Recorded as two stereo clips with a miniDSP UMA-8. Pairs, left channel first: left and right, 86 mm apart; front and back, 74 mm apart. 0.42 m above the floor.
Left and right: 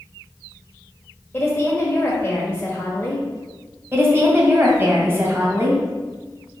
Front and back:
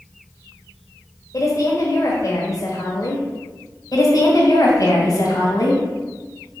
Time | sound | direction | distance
1.3 | a woman speaking | 25° left | 1.5 m
3.9 | a woman speaking | 30° right | 2.5 m